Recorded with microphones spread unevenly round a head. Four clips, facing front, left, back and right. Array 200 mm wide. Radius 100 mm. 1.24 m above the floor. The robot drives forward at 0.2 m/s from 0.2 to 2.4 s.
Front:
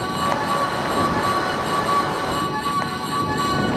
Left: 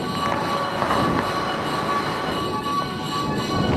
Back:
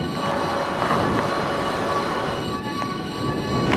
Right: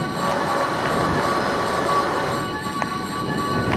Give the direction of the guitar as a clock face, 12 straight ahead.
I don't hear a guitar.